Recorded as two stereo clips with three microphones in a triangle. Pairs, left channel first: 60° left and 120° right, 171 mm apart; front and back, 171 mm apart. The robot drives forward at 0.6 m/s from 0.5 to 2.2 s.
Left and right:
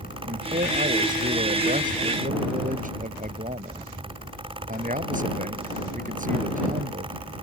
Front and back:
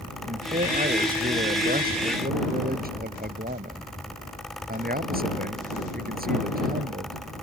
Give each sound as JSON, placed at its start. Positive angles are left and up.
{"t": 0.2, "sound": "a man speaking", "azimuth_deg": -150}